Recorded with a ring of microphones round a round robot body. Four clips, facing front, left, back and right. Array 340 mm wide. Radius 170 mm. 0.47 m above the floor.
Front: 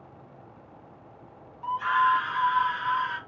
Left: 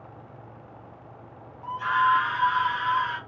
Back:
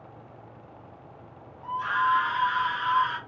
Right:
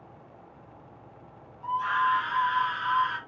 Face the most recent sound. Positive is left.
turn(degrees=130)